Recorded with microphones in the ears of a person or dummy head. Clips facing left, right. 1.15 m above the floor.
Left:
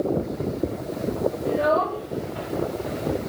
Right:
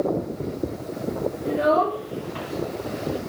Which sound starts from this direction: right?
A child speaking, at 1.4 s.